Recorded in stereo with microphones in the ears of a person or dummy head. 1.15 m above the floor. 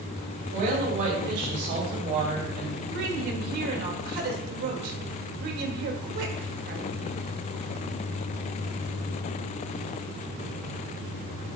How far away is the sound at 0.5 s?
About 4 m.